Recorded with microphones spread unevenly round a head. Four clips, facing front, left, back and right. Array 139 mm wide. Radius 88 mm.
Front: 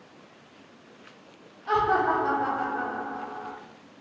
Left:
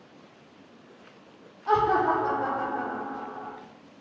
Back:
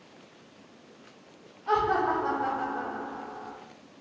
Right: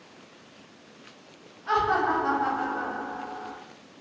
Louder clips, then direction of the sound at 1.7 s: Left 2 dB, front 2 dB; 115° left.